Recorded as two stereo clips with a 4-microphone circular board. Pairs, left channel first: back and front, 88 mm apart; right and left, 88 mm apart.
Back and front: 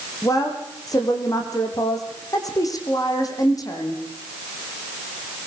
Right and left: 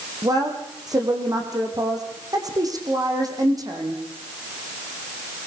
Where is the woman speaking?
135° left, 7 m.